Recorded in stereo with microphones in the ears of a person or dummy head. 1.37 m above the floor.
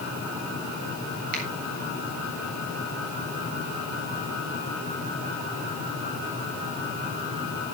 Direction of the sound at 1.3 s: 45° right (ahead or behind).